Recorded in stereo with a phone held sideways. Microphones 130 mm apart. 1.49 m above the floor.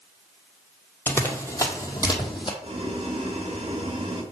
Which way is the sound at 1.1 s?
15° left (ahead or behind).